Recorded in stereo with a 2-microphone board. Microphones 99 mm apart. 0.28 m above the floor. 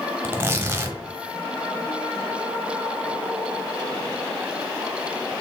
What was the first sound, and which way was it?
Tearing paper, 25° right (ahead or behind).